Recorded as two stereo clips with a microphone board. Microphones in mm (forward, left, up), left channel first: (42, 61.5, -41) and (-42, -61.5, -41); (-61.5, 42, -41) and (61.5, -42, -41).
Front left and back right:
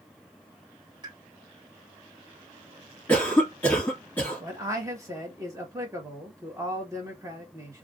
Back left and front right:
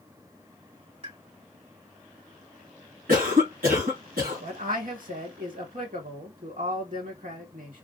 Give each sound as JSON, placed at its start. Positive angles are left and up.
{"t": 1.0, "sound": "a pop", "azimuth_deg": -70, "distance_m": 2.5}
{"t": 3.1, "sound": "a cough", "azimuth_deg": -25, "distance_m": 1.8}
{"t": 4.4, "sound": "a man speaking", "azimuth_deg": -55, "distance_m": 1.6}